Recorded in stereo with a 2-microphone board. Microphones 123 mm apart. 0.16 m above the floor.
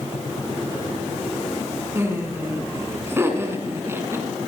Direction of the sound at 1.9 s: 20° right (ahead or behind).